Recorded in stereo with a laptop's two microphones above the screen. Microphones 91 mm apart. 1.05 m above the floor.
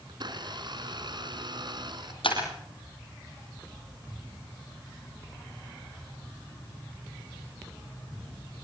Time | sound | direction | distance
0.1 | a blender | 55° right (ahead or behind) | 4 m
2.2 | breaking glass | 70° left (ahead or behind) | 5.5 m